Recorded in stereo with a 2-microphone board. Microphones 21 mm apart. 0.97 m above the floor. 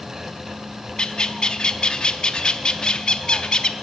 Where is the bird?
45° left (ahead or behind), 0.6 m.